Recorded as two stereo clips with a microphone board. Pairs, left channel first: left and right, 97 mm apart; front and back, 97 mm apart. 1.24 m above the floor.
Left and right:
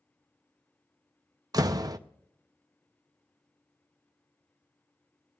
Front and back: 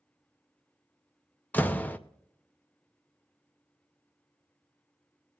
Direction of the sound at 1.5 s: 65° right.